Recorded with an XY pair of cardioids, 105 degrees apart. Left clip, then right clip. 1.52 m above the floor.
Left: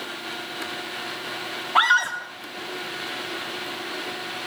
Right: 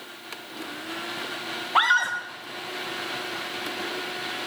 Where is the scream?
Straight ahead, 1.5 m.